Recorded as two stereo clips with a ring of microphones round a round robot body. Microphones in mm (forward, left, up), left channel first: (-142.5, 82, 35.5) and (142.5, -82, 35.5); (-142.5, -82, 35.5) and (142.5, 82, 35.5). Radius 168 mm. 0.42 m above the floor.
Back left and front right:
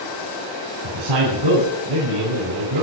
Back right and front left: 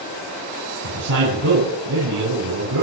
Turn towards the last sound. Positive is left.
turn(degrees=-10)